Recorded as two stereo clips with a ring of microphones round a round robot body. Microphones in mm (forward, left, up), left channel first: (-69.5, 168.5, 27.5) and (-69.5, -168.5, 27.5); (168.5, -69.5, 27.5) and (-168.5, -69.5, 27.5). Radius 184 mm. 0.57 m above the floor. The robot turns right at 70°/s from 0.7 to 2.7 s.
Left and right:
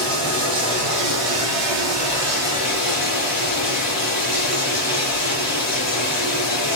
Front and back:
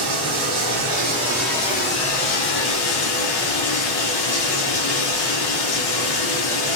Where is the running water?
145° right, 5 m; by 6.8 s 5° right, 5 m.